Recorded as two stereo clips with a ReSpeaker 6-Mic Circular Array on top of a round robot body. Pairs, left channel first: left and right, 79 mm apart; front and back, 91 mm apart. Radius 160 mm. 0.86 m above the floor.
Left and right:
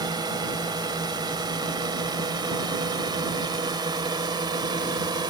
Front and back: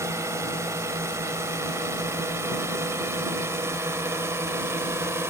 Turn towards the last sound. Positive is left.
turn(degrees=-120)